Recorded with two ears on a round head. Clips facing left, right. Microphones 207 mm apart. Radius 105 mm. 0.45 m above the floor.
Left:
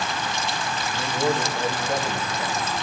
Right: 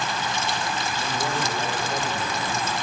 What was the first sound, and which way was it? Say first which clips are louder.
A man speaking: left 4 dB; 50° left (ahead or behind).